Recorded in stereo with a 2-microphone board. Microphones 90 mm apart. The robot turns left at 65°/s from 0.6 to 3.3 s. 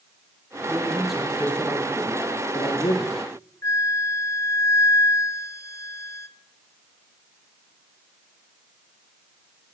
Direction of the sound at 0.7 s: 150° right.